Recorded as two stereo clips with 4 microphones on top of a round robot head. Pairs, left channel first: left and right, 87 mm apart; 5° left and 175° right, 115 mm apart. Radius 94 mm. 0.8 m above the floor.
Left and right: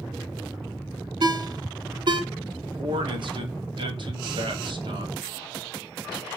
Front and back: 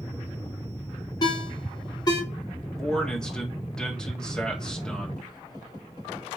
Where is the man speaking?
80° right, 2 m.